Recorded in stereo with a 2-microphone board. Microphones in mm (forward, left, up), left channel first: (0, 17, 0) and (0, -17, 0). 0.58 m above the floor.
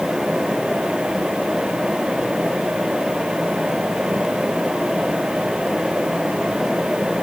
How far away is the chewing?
I don't hear chewing.